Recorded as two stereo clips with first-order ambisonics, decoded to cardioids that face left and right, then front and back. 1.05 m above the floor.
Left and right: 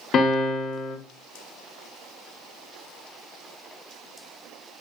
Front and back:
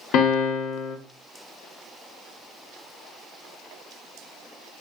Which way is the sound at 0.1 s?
30° left.